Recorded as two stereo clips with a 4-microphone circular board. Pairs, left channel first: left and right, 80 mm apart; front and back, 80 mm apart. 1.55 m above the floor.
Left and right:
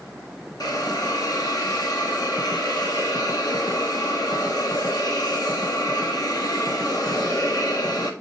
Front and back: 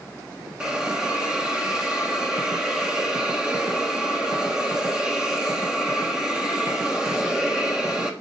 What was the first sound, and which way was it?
A hiss, 100° left.